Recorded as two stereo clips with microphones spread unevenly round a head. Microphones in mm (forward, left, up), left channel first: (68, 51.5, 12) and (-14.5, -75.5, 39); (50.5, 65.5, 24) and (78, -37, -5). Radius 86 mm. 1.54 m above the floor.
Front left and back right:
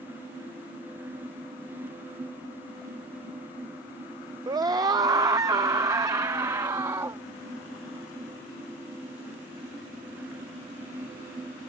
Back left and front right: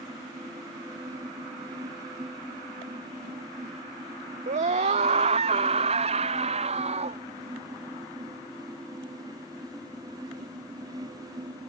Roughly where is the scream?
Ahead right.